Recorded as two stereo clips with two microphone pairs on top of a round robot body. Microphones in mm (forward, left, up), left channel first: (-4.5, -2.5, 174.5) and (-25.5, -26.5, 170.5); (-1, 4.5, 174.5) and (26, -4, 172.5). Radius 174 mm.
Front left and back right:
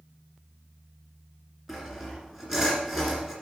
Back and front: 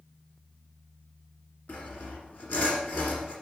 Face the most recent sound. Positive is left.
turn(degrees=145)